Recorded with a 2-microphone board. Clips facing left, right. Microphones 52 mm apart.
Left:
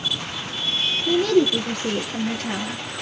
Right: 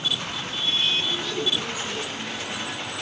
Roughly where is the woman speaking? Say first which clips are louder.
Left 9 dB; left.